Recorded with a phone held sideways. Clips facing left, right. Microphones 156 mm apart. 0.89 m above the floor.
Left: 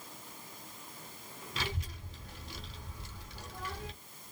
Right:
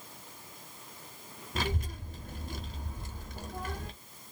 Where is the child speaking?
50° right (ahead or behind), 0.8 m.